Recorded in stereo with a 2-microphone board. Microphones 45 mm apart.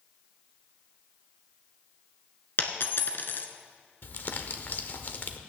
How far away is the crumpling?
About 0.9 m.